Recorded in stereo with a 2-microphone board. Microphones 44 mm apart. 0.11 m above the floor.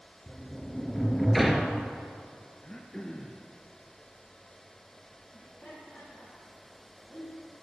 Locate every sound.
0.3 s a sliding door: centre (ahead or behind), 0.9 m
2.6 s throat clearing: 15° left (ahead or behind), 1.3 m
5.3 s laughter: 20° left (ahead or behind), 5.5 m